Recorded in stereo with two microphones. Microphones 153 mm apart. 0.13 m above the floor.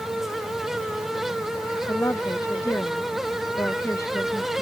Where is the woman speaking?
20° left (ahead or behind).